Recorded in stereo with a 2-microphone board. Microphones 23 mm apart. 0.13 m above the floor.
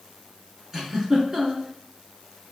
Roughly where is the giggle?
Right.